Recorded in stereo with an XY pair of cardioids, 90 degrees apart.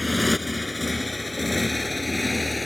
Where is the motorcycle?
10° left; by 2.7 s 15° left.